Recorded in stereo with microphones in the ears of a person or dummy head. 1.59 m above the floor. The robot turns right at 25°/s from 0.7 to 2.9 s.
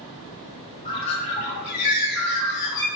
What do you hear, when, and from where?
0.8 s a bird: 30° left, 1.0 m; by 2.9 s 80° left, 1.0 m